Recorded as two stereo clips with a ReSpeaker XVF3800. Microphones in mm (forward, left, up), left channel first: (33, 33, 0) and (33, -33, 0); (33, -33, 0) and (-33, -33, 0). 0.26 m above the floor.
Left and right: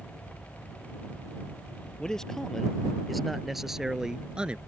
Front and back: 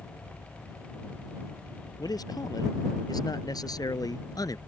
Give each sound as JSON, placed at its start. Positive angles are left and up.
{"t": 2.0, "sound": "a man speaking", "azimuth_deg": 10}